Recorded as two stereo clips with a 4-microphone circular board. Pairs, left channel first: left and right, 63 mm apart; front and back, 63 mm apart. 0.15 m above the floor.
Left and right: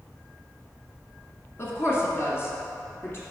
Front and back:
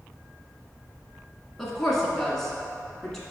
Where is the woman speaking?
80° left, 1.6 m.